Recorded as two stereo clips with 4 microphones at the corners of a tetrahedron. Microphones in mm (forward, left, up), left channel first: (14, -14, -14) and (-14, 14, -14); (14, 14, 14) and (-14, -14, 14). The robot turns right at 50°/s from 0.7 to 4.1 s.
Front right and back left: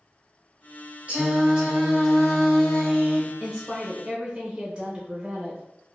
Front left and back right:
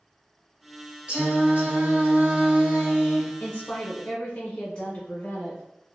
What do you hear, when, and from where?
1.1 s singing: 175° left, 1.1 m; by 3.3 s 75° right, 1.1 m
3.4 s a woman speaking: 60° left, 0.7 m; by 5.6 s 95° left, 0.7 m